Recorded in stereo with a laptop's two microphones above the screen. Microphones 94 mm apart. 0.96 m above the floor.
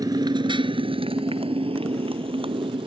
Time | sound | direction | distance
0.0 | a motorcycle | 45° right (ahead or behind) | ?